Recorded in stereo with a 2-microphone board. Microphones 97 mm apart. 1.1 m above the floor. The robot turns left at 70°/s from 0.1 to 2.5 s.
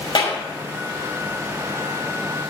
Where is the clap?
50° left (ahead or behind), 5.5 m; by 0.4 s 65° left (ahead or behind), 5.5 m.